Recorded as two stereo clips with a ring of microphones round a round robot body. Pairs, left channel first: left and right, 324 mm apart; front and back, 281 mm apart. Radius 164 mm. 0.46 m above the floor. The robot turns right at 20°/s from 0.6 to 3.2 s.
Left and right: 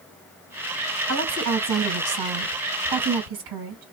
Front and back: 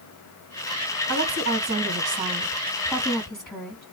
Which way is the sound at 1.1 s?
130° right.